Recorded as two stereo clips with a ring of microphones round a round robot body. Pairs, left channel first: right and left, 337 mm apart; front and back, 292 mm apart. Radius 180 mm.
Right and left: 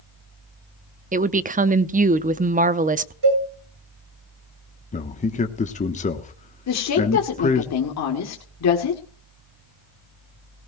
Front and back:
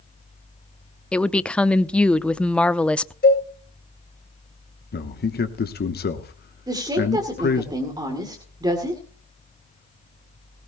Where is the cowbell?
60° left, 9.5 m.